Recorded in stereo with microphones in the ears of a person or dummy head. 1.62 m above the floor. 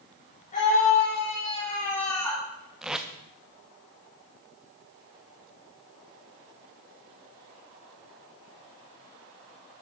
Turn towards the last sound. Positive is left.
turn(degrees=0)  # may be behind; listen again after turning